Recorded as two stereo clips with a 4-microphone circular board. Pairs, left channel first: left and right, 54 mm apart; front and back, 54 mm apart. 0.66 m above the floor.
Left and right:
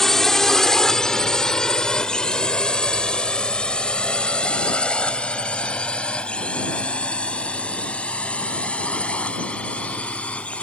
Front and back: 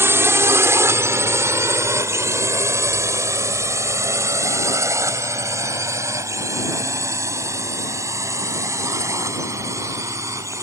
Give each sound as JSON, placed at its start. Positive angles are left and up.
{"t": 0.0, "sound": "a drone", "azimuth_deg": 170}